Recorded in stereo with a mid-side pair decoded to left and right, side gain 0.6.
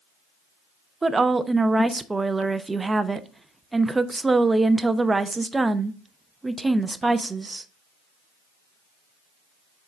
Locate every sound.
1.0 s a woman speaking: 15° right, 0.7 m